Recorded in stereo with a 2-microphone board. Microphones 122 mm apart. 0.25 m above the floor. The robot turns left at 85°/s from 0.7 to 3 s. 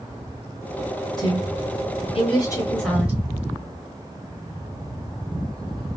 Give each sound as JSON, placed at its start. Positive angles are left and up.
{"t": 1.2, "sound": "a woman speaking", "side_deg": 30, "distance_m": 3.0}